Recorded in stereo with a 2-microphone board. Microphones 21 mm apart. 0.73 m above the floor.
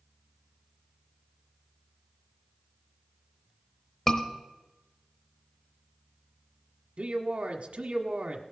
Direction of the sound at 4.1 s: 25° left (ahead or behind).